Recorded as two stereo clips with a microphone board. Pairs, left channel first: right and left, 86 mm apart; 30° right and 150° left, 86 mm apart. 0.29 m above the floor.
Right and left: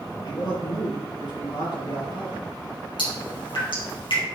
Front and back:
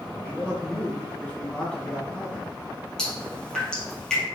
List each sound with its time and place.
0.2 s a man speaking: 105° right, 4 m
3.0 s dripping: 110° right, 3.5 m